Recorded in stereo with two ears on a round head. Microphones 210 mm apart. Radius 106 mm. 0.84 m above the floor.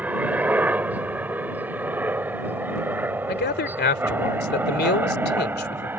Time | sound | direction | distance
0.0 | a helicopter | 5° right (ahead or behind) | ?
3.3 | a man speaking | 45° left (ahead or behind) | ?